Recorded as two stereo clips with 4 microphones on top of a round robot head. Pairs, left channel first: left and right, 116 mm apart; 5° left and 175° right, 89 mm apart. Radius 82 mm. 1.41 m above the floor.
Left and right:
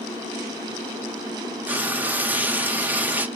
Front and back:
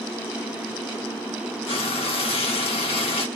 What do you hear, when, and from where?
1.7 s frying: 15° right, 1.1 m